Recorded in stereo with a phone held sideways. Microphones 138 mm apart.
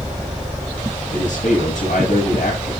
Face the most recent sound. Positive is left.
turn(degrees=65)  # may be behind; listen again after turning